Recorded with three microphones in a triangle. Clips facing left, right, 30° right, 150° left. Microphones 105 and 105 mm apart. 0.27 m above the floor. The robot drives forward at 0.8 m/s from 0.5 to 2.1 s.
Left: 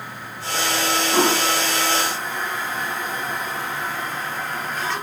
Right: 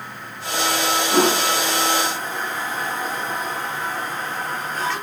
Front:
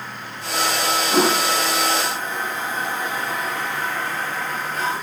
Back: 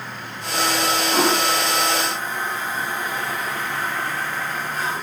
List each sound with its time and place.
1.1 s a toilet flushing: 40° right, 6 m; by 5.0 s 45° right, 5.5 m